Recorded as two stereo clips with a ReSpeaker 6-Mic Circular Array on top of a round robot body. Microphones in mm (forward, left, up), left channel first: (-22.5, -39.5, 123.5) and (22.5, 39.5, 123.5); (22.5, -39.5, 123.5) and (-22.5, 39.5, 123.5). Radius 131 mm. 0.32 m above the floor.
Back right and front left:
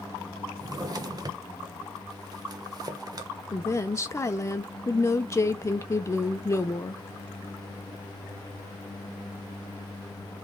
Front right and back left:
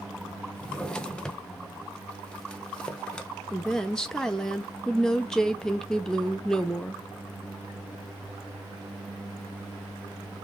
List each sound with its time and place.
0.6 s a drawer: 20° left, 0.9 m
3.5 s a woman speaking: 135° right, 0.9 m